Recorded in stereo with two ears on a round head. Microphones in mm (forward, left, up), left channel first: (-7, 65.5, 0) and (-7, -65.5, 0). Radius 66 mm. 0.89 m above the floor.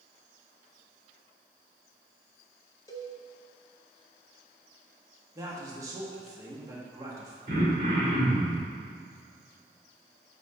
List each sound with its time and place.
2.9 s a cowbell: 25° left (ahead or behind), 0.9 m
5.3 s a man speaking: 25° right (ahead or behind), 1.3 m
7.5 s throat clearing: 55° right (ahead or behind), 2 m